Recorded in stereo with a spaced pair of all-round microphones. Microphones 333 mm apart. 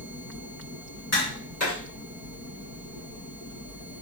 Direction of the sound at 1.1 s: 50° left (ahead or behind).